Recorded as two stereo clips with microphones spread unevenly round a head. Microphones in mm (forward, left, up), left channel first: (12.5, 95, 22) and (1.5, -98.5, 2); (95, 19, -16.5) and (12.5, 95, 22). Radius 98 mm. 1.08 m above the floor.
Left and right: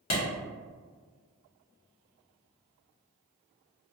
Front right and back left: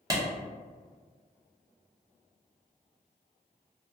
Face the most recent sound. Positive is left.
turn(degrees=75)